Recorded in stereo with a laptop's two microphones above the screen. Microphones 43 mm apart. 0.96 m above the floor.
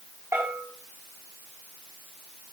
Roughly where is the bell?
Right.